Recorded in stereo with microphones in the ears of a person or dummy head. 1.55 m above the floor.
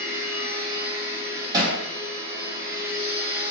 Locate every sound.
0.0 s a machine running: 20° right (ahead or behind), 1.4 m
1.5 s hammering: 25° right (ahead or behind), 1.0 m